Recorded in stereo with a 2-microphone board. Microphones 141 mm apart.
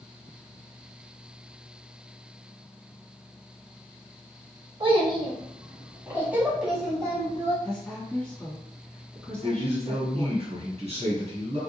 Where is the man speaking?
50° right (ahead or behind), 1.6 m.